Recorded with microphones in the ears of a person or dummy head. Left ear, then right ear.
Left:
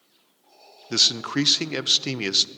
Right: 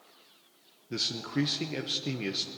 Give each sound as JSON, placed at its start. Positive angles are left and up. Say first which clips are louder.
{"t": 0.9, "sound": "a man speaking", "louder": "left 11 dB", "side_deg": 55, "distance_m": 0.6}